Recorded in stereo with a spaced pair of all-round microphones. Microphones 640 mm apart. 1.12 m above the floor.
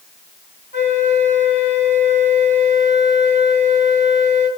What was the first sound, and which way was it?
A flute, 60° left (ahead or behind).